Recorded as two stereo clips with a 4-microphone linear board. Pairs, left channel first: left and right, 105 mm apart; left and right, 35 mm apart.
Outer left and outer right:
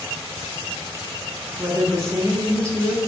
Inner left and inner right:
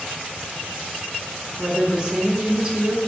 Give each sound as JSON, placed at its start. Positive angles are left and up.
{"t": 1.6, "sound": "a woman speaking", "side_deg": -25, "distance_m": 0.7}